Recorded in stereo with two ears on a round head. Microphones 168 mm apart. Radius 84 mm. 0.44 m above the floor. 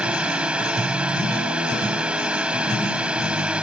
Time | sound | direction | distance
0.0 | a drone | 5° right (ahead or behind) | ?